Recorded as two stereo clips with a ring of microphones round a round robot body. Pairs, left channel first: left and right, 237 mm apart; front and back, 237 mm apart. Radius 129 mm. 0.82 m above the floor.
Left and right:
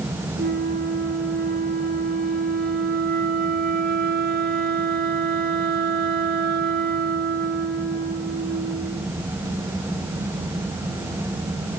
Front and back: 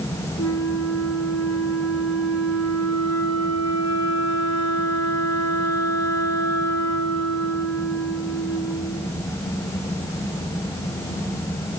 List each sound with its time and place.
0.4 s a flute: 35° right, 1.5 m